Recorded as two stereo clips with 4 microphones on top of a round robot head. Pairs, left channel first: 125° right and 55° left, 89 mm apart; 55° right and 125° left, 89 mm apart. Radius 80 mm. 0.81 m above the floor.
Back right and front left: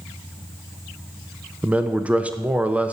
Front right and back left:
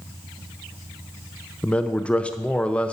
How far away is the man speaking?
About 0.6 m.